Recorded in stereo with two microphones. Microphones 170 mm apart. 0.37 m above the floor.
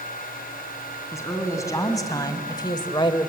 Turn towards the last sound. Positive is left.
turn(degrees=25)  # may be behind; listen again after turning